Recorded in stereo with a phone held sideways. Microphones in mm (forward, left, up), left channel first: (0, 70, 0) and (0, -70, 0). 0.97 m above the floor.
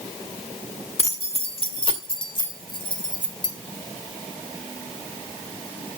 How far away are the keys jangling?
About 1.6 m.